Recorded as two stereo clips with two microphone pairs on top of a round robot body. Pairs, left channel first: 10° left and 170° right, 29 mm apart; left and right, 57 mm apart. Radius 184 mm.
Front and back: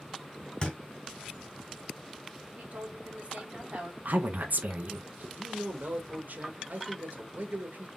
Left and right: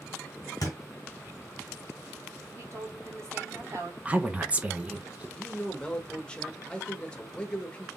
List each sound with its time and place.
0.6 s a thud: 60° left, 1.4 m
2.5 s a woman speaking: 130° right, 2 m
4.0 s a woman speaking: 160° right, 0.7 m
5.4 s a man speaking: 165° left, 1.2 m